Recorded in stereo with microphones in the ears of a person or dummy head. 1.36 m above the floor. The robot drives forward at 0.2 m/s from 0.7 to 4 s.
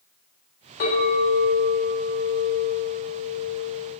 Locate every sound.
0.8 s a clink: 55° left (ahead or behind), 1.3 m; by 3.9 s 35° left (ahead or behind), 1.7 m